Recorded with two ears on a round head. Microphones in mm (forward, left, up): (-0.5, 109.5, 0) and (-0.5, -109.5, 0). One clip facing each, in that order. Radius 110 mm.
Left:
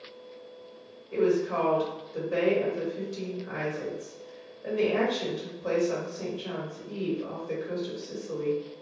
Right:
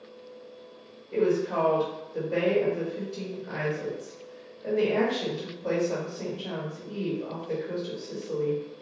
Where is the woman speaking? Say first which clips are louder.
Even; 30° left (ahead or behind), 1.8 m.